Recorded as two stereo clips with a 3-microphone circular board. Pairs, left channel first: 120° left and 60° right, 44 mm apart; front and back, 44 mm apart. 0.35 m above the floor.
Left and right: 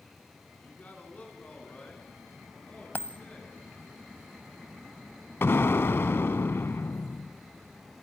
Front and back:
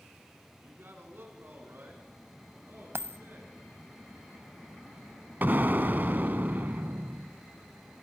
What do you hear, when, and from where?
0.6 s a man speaking: 165° left, 4.5 m; by 3.6 s 175° left, 6 m
3.0 s a dropped coin: 160° left, 0.5 m
5.4 s an explosion: 140° left, 0.6 m